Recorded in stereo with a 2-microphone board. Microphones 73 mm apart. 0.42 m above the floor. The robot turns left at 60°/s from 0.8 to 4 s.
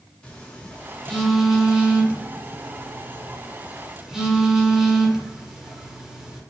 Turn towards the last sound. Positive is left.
turn(degrees=-10)  # may be behind; listen again after turning